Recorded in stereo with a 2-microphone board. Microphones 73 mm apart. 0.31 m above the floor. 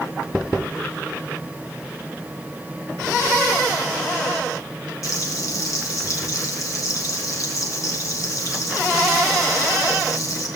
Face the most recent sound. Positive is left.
turn(degrees=45)  # may be behind; listen again after turning